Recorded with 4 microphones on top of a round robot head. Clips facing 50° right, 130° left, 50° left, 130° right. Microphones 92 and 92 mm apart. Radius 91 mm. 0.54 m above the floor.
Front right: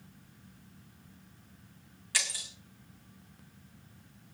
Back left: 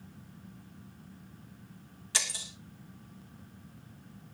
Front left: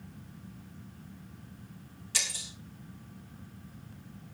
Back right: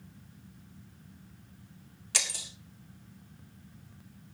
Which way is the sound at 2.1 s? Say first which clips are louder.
Even, back right 2 dB; 160° right.